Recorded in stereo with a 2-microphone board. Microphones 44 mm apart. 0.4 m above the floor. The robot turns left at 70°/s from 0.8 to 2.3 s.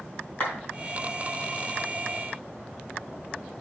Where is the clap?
35° left (ahead or behind), 3 m.